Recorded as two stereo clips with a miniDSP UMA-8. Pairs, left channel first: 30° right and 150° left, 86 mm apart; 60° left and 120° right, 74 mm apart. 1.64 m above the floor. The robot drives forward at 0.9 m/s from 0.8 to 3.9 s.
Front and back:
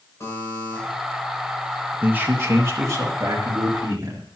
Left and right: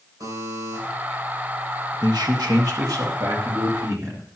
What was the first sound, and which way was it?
A buzzer, 85° right.